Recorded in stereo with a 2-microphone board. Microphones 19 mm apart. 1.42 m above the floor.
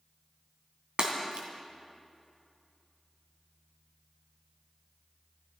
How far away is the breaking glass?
About 2.5 m.